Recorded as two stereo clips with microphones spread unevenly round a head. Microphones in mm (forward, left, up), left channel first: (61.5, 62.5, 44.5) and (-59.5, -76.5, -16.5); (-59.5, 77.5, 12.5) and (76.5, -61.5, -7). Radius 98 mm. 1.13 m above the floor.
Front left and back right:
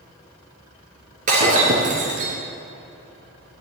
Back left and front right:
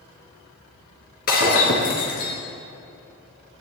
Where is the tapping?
No tapping in this recording.